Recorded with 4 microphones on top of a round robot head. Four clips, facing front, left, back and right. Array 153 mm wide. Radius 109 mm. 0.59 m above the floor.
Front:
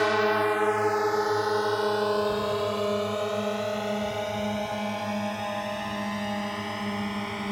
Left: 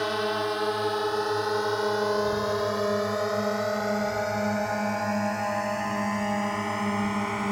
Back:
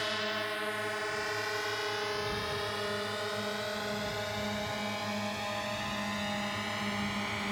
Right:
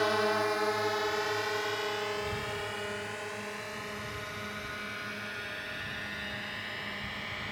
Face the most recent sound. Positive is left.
turn(degrees=65)